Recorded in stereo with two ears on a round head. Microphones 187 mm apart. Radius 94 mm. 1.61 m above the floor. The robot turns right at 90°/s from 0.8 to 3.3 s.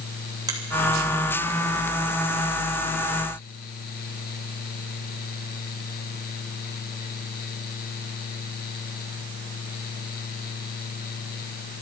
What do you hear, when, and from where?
0.5 s a finger snap: 20° right (ahead or behind), 3 m